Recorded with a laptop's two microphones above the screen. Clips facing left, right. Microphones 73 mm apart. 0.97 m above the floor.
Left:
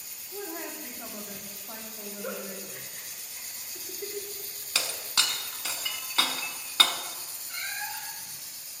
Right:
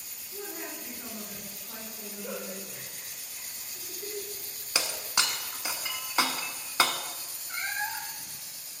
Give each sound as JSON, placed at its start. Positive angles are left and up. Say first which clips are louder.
{"t": 0.3, "sound": "a woman speaking", "louder": "left 2 dB", "side_deg": 60, "distance_m": 2.0}
{"t": 2.2, "sound": "a giggle", "louder": "left 1 dB", "side_deg": 70, "distance_m": 2.0}
{"t": 4.8, "sound": "breaking glass", "louder": "right 1 dB", "side_deg": -20, "distance_m": 0.9}
{"t": 7.5, "sound": "a cat meowing", "louder": "right 4 dB", "side_deg": -30, "distance_m": 1.0}